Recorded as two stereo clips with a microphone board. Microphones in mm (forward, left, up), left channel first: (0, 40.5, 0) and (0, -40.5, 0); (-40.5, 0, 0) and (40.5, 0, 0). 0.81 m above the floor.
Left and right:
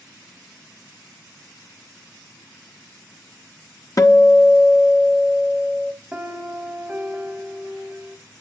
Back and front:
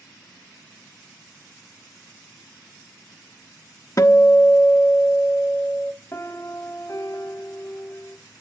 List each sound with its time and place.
4.0 s a guitar: 130° left, 1.0 m
6.1 s a piano: 160° right, 1.2 m